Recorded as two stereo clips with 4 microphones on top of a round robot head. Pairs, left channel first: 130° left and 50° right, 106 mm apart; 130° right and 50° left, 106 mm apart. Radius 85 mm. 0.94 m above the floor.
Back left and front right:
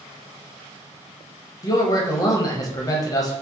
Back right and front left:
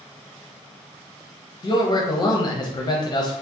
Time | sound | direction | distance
1.6 | a man speaking | 175° right | 0.6 m